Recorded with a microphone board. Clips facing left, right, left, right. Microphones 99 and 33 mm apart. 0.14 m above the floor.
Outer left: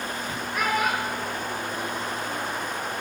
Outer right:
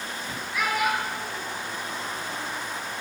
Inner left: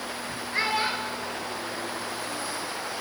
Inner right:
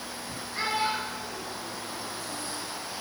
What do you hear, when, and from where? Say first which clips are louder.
0.5 s a child speaking: even, inner left 2 dB; 50° left (ahead or behind), 2 m; by 2.5 s 40° left (ahead or behind), 3 m